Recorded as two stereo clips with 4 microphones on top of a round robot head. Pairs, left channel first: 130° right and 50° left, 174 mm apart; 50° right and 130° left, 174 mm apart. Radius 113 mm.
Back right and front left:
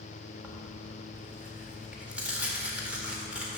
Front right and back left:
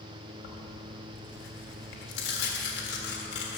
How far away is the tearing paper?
About 1.6 m.